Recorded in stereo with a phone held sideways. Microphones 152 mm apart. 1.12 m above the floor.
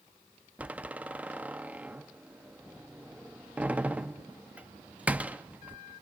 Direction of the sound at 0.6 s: 10° right (ahead or behind).